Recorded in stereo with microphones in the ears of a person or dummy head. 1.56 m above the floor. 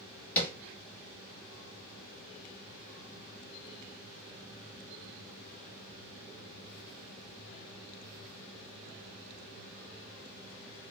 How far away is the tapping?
About 2.5 m.